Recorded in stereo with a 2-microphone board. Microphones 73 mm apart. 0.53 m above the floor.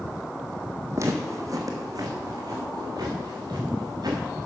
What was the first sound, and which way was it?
Footsteps, 40° right (ahead or behind).